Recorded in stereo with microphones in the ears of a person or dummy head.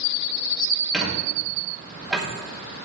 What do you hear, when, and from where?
0.9 s a squeak: centre (ahead or behind), 2.5 m